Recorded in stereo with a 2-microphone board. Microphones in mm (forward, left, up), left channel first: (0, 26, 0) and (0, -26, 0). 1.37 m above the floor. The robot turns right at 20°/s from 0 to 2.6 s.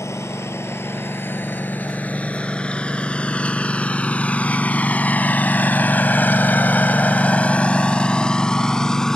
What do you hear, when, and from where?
0.0 s a lawn mower: 65° left (ahead or behind); by 9.2 s 10° left (ahead or behind)